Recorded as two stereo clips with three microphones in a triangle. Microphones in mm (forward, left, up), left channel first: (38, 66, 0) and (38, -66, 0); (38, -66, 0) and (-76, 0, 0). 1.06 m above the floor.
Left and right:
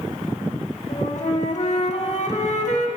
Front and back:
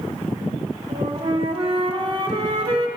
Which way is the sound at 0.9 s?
105° left.